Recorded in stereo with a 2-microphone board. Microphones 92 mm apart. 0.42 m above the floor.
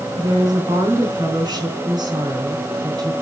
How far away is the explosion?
No explosion in this recording.